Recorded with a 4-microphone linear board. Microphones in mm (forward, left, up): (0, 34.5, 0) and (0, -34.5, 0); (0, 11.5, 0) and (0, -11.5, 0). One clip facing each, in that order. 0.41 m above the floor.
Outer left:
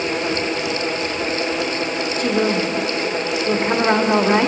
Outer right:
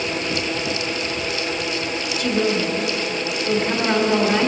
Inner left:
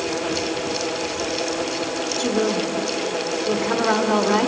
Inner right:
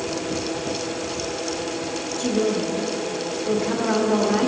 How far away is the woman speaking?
About 1.4 m.